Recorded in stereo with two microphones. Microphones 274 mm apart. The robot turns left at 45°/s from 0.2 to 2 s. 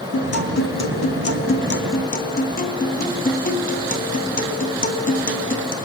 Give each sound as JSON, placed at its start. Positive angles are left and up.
{"t": 0.1, "sound": "a guitar", "azimuth_deg": 115, "distance_m": 2.0}